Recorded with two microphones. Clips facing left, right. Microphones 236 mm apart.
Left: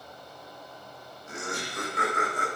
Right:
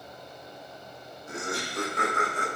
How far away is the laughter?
About 2.5 m.